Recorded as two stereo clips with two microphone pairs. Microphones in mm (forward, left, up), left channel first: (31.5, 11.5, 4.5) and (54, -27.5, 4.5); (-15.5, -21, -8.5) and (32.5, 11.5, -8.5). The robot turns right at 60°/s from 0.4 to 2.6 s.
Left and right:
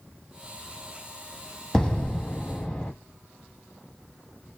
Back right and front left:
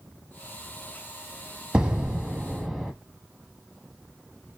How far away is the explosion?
About 0.8 m.